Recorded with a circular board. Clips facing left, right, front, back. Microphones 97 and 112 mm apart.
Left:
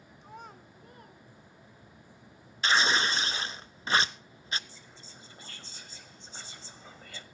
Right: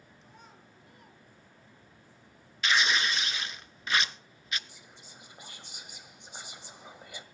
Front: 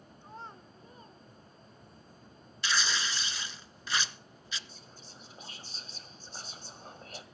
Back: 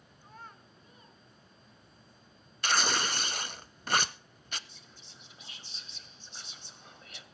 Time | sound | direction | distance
0.2 | a child speaking | 65° left | 1.6 m
2.6 | tearing paper | 145° left | 0.7 m
4.7 | whispering | 20° right | 2.0 m